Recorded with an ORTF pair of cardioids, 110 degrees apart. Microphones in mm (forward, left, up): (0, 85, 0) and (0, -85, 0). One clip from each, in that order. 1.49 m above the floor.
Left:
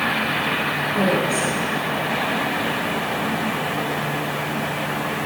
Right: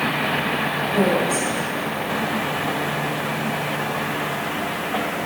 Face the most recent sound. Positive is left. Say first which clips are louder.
# right 1 dB
turn(degrees=-35)